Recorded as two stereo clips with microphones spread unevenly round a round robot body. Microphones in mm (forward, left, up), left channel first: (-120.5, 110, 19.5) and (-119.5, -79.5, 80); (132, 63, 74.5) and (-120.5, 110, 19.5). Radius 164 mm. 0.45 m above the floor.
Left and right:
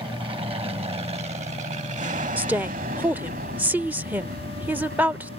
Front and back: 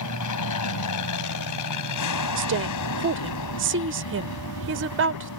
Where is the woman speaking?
Straight behind.